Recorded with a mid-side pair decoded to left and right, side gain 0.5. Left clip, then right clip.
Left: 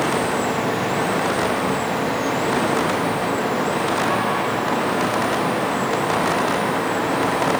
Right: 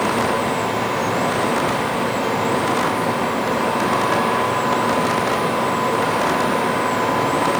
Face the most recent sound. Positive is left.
turn(degrees=-70)